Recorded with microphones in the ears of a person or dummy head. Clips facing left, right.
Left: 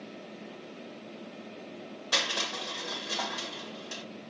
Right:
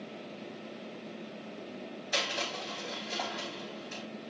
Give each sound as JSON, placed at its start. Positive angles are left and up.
{"t": 2.1, "sound": "crushing", "side_deg": 75, "distance_m": 2.0}